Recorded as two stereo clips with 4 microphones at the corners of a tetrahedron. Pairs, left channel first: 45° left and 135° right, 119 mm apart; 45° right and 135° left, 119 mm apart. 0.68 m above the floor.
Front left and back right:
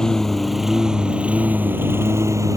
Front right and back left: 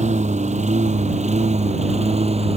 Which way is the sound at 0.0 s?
130° left.